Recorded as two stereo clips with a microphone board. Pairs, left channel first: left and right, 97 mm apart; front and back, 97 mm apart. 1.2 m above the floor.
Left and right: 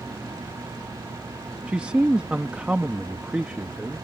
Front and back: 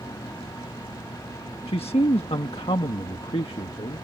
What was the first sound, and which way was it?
A man speaking, 10° right.